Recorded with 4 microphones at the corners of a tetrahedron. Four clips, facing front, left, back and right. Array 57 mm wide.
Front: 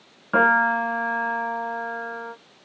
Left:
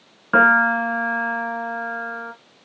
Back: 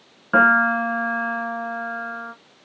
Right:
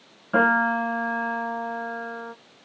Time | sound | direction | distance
0.3 | a piano | 110° left | 1.3 m